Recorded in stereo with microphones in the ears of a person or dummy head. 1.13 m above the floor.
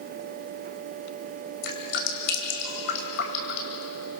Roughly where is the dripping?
Left.